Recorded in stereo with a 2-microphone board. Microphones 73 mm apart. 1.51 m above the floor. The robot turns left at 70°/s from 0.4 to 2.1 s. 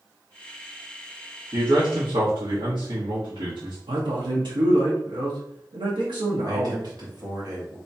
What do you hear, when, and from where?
1.5 s a man speaking: 50° right, 1.6 m; by 3.8 s 90° right, 1.6 m
3.9 s a man speaking: 75° right (ahead or behind), 1.2 m
6.4 s a man speaking: 55° right (ahead or behind), 1.6 m